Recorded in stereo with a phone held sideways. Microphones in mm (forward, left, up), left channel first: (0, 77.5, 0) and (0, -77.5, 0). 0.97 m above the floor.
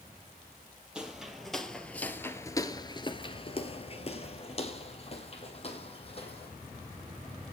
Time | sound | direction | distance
0.9 | footsteps | 5° right (ahead or behind) | 1.6 m